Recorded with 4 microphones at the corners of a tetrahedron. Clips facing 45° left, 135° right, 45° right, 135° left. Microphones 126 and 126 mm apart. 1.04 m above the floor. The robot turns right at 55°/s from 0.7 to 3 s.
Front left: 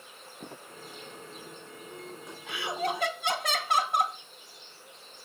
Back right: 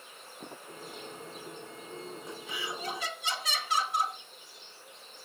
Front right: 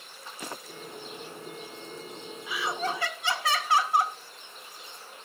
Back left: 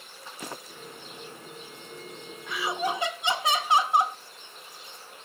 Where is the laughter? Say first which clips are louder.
Front left 8 dB, back left 2 dB; 40° left, 1.5 m; by 4.2 s 65° left, 1.5 m.